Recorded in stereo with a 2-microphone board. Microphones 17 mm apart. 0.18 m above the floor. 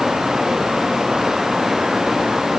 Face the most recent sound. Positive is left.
No sound to turn to.